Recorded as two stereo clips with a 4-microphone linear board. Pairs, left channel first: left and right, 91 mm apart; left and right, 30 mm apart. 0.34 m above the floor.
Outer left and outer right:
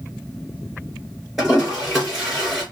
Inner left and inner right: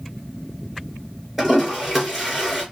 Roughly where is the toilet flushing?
Centre.